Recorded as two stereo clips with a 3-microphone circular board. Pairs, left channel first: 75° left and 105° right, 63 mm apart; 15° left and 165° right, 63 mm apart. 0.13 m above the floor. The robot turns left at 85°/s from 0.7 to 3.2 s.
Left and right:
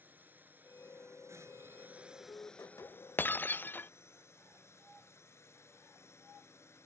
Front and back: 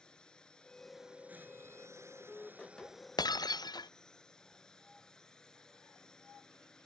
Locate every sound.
0.0 s a drone: 55° right; by 6.9 s 90° left
3.2 s breaking glass: 15° left